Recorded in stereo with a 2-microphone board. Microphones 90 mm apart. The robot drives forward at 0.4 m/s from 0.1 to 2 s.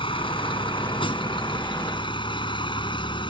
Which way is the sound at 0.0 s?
75° left (ahead or behind).